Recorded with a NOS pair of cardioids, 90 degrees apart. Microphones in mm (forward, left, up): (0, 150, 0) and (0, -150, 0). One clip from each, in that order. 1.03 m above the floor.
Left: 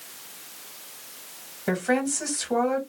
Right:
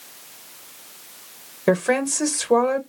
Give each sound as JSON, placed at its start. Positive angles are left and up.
{"t": 1.7, "sound": "a woman speaking", "azimuth_deg": -45, "distance_m": 1.1}